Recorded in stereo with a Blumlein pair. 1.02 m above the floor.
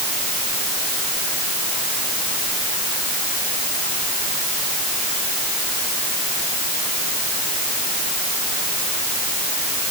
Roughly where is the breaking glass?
I don't hear breaking glass.